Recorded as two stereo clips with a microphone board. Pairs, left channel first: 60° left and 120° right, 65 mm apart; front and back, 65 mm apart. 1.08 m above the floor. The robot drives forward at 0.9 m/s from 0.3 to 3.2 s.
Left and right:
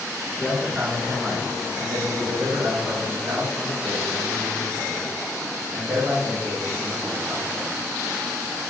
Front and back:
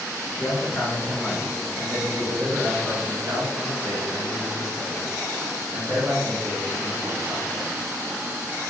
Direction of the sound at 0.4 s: 30° right.